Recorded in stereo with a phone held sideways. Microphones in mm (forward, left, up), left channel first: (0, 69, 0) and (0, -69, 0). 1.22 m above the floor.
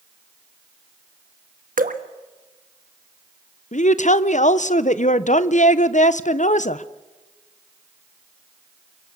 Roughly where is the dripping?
Right.